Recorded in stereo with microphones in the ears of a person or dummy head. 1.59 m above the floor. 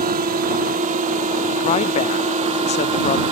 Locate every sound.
0.0 s a drone: 35° right (ahead or behind); by 3.3 s 25° right (ahead or behind)
1.6 s a woman speaking: 30° left (ahead or behind)